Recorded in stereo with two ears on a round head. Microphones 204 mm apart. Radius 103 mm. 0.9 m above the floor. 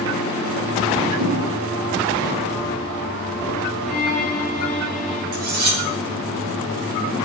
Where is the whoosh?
80° right, 2 m.